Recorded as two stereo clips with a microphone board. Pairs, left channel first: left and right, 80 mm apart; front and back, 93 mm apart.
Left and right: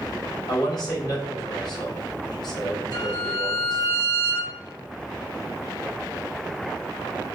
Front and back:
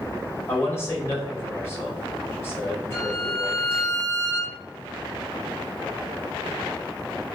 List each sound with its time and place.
0.5 s a man speaking: 60° left, 3.5 m
2.9 s a violin: 50° left, 3 m